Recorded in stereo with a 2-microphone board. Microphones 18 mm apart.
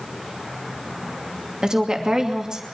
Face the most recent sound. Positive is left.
turn(degrees=-40)  # may be behind; listen again after turning